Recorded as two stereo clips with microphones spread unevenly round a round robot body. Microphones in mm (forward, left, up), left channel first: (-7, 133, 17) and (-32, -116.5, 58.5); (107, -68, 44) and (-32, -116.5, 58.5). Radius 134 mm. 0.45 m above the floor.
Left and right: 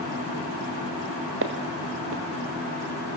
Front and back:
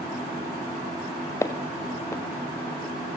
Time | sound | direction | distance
1.4 | footsteps | 50° right | 2.5 m